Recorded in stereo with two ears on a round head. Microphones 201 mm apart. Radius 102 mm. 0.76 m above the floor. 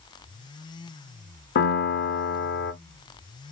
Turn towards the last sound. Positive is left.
turn(degrees=45)  # may be behind; listen again after turning